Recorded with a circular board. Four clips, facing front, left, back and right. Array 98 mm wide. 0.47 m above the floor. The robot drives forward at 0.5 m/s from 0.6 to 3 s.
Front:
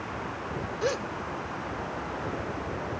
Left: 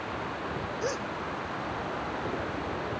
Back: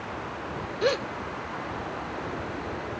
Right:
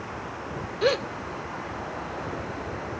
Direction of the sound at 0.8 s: 110° right.